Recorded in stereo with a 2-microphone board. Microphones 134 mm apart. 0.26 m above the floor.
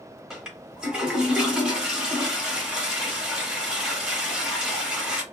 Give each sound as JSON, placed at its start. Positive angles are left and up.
{"t": 0.3, "sound": "a toilet flushing", "side_deg": -5, "distance_m": 0.9}